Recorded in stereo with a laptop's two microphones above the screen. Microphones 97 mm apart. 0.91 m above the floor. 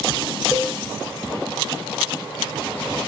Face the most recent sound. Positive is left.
turn(degrees=-10)  # may be behind; listen again after turning